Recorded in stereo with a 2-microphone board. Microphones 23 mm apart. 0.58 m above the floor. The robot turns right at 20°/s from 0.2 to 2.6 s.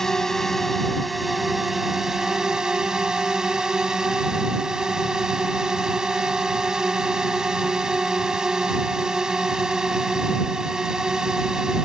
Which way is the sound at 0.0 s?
160° left.